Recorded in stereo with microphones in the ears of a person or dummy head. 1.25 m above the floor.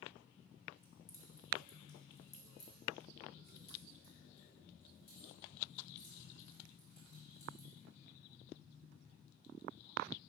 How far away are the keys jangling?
About 0.8 m.